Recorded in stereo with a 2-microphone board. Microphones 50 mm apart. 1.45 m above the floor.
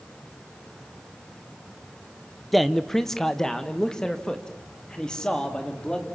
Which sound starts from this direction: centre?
A man speaking, at 2.5 s.